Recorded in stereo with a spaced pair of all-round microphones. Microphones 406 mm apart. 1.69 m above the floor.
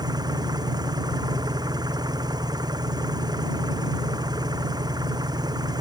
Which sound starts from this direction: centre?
An engine running, at 0.0 s.